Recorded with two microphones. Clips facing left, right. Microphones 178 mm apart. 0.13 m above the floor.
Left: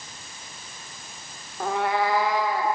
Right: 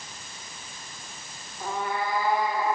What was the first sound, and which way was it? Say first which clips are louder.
A cat meowing: left 6 dB; 65° left (ahead or behind).